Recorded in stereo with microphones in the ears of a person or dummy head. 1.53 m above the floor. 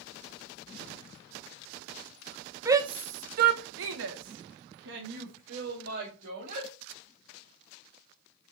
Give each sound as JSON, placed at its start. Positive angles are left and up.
{"t": 2.6, "sound": "a shout", "side_deg": -15, "distance_m": 1.2}